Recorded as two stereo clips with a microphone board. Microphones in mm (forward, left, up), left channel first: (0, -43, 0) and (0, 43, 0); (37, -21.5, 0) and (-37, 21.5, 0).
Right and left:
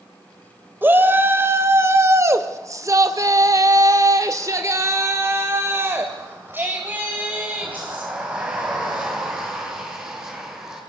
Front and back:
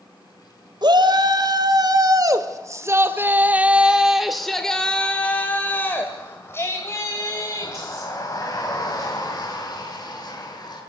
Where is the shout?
155° left, 2.5 m; by 10.8 s 15° left, 5 m.